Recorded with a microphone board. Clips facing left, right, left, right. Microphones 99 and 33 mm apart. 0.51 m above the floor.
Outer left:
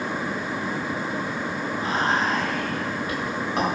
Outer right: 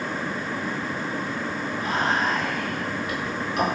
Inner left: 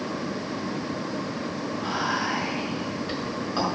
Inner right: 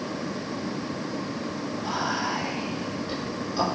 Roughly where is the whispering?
Left.